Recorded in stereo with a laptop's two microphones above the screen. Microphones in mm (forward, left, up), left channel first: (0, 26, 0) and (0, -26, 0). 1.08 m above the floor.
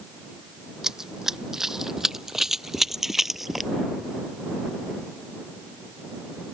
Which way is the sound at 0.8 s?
10° right (ahead or behind).